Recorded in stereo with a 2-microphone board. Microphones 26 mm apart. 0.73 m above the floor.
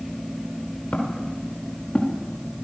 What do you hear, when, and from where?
0.9 s footsteps: 50° left (ahead or behind), 5.5 m; by 2.6 s 65° left (ahead or behind), 5 m